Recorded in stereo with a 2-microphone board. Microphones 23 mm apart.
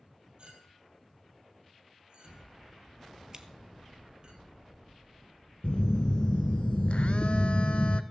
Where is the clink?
40° right (ahead or behind), 2.5 m.